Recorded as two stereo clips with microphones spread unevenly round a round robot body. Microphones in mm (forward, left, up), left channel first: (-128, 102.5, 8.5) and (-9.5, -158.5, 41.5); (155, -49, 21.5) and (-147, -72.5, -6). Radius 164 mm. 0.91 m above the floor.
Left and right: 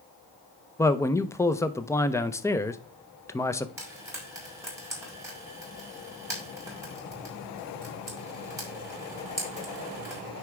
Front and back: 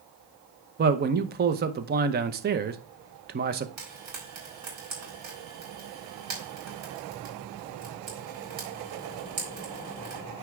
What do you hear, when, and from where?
0.8 s a man speaking: straight behind, 0.7 m
3.8 s frying: 145° right, 4 m